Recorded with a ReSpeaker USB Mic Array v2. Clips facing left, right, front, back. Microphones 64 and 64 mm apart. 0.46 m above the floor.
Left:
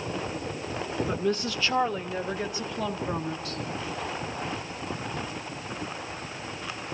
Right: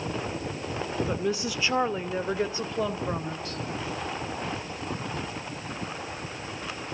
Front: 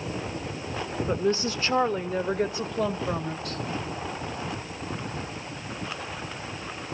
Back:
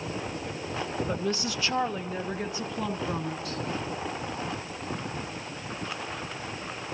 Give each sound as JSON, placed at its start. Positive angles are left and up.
{"t": 1.1, "sound": "a woman speaking", "azimuth_deg": 0, "distance_m": 0.7}